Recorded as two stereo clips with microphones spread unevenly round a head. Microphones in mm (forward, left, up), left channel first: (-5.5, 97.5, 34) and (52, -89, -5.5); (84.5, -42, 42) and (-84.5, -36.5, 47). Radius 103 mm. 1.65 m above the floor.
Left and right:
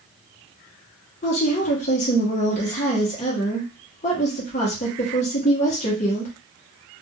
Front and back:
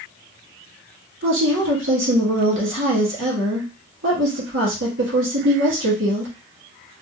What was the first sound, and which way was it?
A woman speaking, 155° left.